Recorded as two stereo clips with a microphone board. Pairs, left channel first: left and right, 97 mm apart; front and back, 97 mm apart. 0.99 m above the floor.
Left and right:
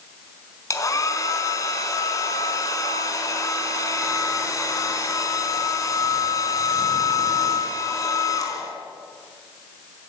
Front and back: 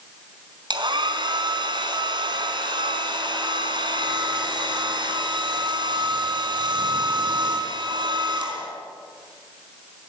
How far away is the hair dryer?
About 4.5 m.